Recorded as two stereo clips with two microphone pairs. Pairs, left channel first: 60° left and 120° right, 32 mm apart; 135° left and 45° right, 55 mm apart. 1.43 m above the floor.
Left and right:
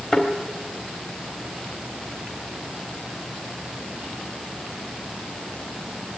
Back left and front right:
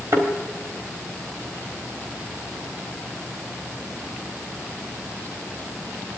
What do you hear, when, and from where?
0.1 s a thud: 15° right, 4 m